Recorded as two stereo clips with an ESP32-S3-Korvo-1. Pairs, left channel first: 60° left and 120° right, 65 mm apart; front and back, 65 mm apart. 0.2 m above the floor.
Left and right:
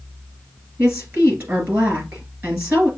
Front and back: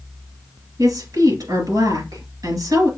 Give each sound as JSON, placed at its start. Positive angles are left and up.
{"t": 0.8, "sound": "a woman speaking", "azimuth_deg": -170, "distance_m": 3.0}